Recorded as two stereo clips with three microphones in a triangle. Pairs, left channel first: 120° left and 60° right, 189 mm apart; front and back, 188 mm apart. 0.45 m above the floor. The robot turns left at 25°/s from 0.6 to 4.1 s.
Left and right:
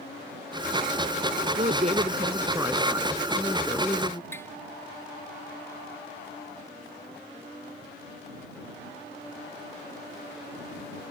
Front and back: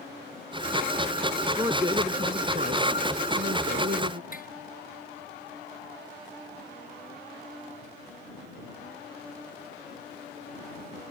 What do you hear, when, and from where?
1.6 s a woman speaking: 105° right; by 4.2 s 170° right
4.3 s tapping: 40° left